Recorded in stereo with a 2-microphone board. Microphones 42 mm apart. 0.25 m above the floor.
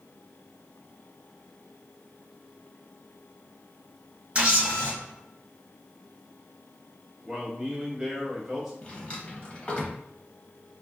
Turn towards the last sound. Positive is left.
turn(degrees=25)  # may be behind; listen again after turning